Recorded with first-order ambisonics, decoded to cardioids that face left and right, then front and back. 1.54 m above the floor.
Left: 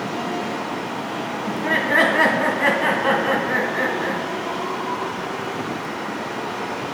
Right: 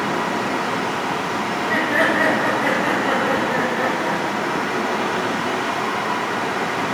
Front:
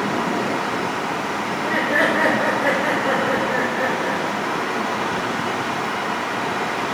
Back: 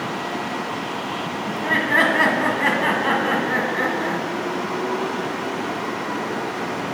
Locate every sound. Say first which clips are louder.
1.5 s laughter: left 2 dB, back 3 dB; 125° left, 1.4 m